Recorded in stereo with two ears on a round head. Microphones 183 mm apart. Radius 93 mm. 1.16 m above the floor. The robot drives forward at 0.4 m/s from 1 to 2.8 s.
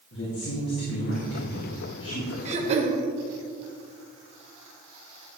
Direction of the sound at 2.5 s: 35° right (ahead or behind).